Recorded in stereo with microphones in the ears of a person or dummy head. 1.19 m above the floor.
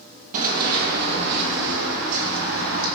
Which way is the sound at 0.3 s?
45° right (ahead or behind).